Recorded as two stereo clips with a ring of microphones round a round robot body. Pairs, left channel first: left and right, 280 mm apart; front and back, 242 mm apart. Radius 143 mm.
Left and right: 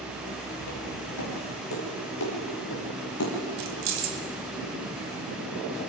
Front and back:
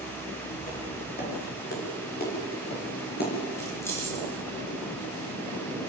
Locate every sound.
0.6 s footsteps: 55° left, 9.5 m; by 3.3 s 50° left, 11 m
3.6 s keys jangling: 80° right, 3 m